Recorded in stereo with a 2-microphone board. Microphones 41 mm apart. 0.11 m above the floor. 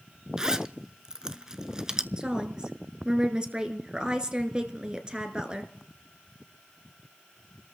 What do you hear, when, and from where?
0.4 s a zipper: 20° right (ahead or behind), 0.5 m
2.2 s a woman speaking: 25° right (ahead or behind), 1.3 m